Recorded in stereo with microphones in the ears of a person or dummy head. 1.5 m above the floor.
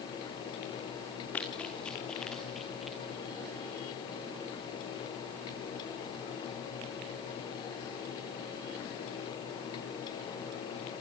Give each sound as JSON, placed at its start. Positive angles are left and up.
{"t": 1.3, "sound": "running footsteps", "side_deg": 5, "distance_m": 5.0}